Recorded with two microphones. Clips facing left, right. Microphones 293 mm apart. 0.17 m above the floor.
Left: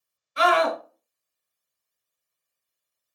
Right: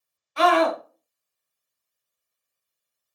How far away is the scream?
About 1.4 m.